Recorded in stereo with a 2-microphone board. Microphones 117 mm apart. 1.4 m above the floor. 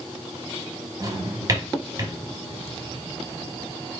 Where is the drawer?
35° right (ahead or behind), 1.6 m.